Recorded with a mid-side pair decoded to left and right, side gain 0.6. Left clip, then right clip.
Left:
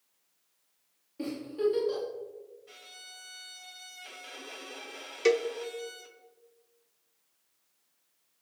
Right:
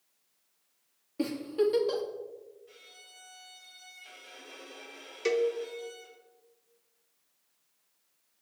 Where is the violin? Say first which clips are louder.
Left 4 dB; 40° left, 1.2 m.